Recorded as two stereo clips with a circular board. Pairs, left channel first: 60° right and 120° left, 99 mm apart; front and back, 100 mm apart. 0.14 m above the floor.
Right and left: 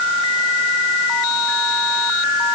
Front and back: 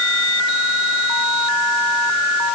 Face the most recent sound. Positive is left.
No sound to turn to.